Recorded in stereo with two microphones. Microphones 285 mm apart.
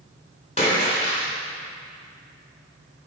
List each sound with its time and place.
0.6 s a splash: 25° left (ahead or behind), 2.5 m